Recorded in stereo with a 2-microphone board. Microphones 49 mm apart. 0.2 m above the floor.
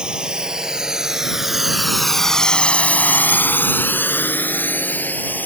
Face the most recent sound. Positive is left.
turn(degrees=35)  # may be behind; listen again after turning